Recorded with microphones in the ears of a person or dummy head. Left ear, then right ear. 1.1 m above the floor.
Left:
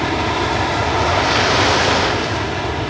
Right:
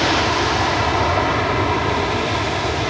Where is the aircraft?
10° right (ahead or behind); by 2.9 s 15° right (ahead or behind).